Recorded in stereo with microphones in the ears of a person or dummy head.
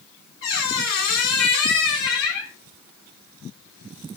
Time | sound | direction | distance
0.4 | a squeak | 60° left (ahead or behind) | 0.9 m